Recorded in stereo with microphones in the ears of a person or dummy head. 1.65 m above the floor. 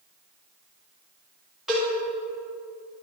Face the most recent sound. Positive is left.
turn(degrees=-5)  # may be behind; listen again after turning